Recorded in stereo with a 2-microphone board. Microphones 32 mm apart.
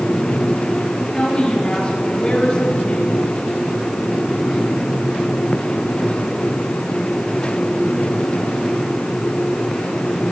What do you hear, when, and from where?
1.1 s a woman speaking: 30° left (ahead or behind), 6 m